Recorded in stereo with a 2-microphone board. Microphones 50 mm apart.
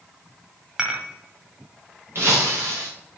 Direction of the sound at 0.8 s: 15° right (ahead or behind).